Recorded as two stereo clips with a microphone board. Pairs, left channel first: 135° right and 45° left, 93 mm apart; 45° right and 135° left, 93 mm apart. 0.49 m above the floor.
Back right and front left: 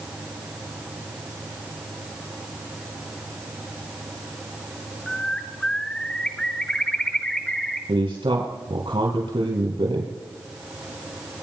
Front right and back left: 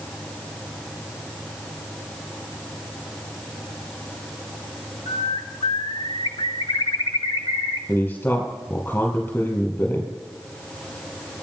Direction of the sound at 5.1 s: 55° right.